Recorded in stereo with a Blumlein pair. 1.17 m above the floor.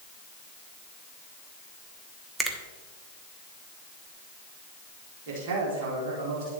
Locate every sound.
2.4 s a finger snap: 15° right, 1.3 m
5.3 s a man speaking: 50° right, 3.5 m